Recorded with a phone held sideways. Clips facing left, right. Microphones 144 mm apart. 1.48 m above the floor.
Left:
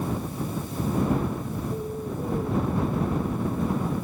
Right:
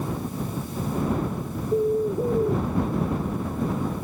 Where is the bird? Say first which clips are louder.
Right 9 dB; 45° right (ahead or behind).